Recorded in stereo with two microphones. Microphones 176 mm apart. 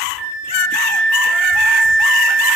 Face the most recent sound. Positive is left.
turn(degrees=0)  # may be behind; listen again after turning